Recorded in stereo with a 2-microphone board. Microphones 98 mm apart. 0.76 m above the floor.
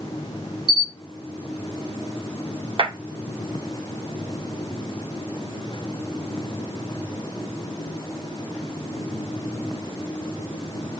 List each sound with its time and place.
0.7 s a camera shutter: 60° right (ahead or behind), 3.5 m
2.8 s a clap: 65° right (ahead or behind), 2.5 m